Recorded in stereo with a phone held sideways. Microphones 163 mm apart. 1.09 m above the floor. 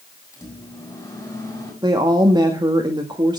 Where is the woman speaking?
25° right (ahead or behind), 1.6 m.